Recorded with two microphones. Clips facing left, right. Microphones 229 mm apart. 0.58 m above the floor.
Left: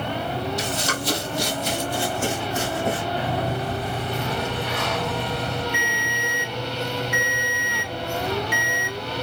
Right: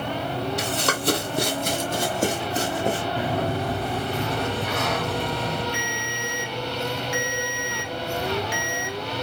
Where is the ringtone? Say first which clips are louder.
Left 1 dB; 60° left (ahead or behind), 0.9 m.